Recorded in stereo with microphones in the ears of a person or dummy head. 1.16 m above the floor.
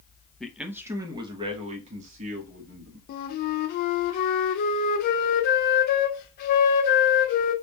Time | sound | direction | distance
0.4 | a man speaking | centre (ahead or behind) | 0.7 m
3.1 | a flute | 55° left (ahead or behind) | 0.6 m